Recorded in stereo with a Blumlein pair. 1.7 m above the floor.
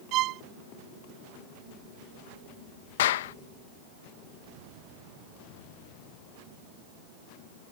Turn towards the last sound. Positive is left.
turn(degrees=55)